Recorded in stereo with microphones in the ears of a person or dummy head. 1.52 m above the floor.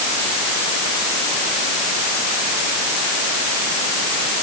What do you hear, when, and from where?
Only background noise.